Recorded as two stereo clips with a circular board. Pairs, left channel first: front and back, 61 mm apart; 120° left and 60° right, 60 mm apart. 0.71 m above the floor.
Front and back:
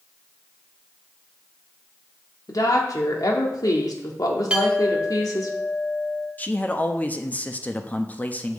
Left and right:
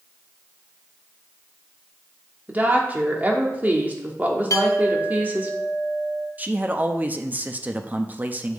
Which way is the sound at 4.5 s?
105° left.